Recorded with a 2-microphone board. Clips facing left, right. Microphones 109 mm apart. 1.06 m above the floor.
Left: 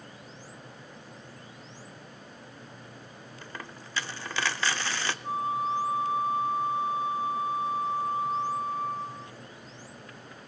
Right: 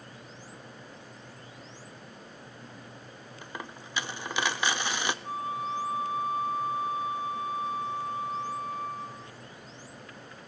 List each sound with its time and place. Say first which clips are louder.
3.4 s a dropped coin: right 2 dB; 15° right (ahead or behind), 0.7 m
5.2 s a flute: left 4 dB; 30° left (ahead or behind), 0.9 m